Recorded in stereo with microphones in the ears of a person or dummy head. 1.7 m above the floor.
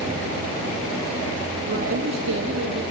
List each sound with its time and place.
1.7 s a woman speaking: 70° right (ahead or behind), 2.5 m